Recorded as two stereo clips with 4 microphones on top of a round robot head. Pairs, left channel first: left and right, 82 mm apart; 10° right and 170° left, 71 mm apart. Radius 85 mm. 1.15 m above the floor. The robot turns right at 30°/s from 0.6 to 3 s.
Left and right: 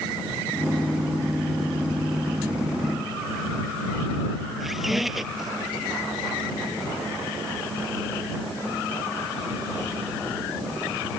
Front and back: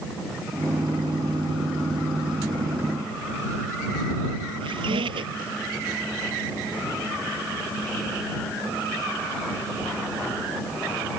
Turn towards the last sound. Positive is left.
turn(degrees=-175)